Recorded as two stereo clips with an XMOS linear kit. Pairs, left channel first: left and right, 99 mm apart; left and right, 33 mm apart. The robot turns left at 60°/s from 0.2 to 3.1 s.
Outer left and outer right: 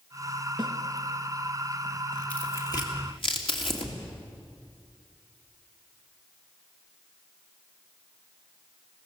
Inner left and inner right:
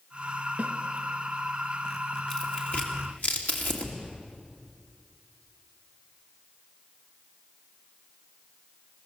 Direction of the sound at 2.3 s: 15° left (ahead or behind).